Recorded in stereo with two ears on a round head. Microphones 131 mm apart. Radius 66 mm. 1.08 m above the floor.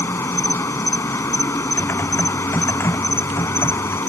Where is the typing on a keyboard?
15° left (ahead or behind).